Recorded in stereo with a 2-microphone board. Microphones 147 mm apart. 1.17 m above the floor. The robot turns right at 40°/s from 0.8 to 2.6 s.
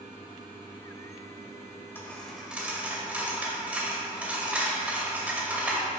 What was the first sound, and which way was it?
A dropped coin, 15° left (ahead or behind).